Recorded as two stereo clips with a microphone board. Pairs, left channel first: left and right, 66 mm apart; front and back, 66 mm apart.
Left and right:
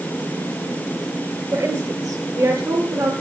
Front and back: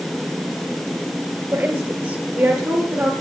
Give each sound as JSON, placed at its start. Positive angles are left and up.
{"t": 1.5, "sound": "a woman speaking", "azimuth_deg": -120, "distance_m": 3.5}